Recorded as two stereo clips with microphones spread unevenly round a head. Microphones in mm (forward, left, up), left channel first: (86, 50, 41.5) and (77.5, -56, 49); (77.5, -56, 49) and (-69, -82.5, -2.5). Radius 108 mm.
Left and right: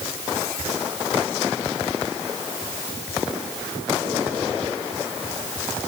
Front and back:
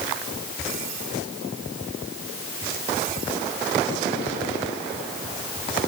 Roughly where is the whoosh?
I don't hear a whoosh.